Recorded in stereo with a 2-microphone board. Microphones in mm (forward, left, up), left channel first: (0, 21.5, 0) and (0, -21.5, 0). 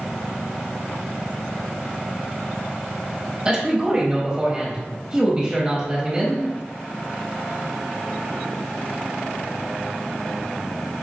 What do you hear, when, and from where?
3.5 s a man speaking: 20° right (ahead or behind), 1.1 m